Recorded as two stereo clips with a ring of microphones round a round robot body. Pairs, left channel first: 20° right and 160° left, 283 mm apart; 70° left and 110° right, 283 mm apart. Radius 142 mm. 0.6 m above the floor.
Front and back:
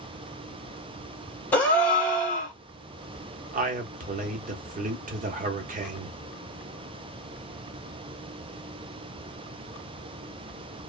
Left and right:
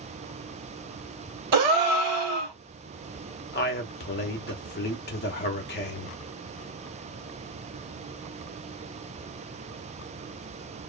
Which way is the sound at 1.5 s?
105° right.